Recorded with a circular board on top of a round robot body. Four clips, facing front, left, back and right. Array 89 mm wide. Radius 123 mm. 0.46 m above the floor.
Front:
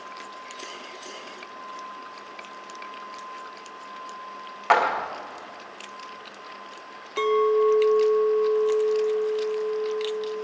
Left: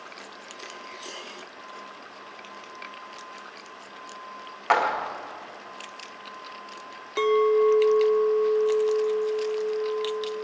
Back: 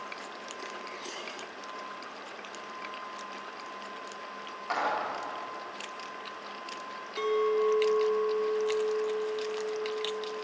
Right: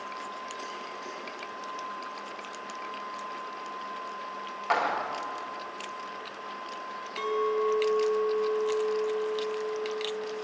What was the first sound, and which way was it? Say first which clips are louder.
A clap: left 5 dB, front 9 dB; 30° left.